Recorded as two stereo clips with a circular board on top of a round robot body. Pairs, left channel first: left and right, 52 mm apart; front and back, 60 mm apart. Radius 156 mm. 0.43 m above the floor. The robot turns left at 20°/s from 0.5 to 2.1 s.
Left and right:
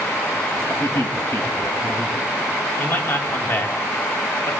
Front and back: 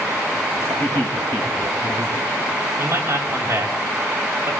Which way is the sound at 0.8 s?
70° left.